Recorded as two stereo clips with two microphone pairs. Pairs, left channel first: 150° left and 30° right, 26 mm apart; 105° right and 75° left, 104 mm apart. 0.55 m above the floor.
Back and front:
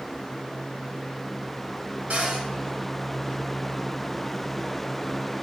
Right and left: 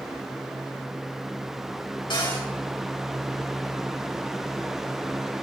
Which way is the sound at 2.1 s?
65° right.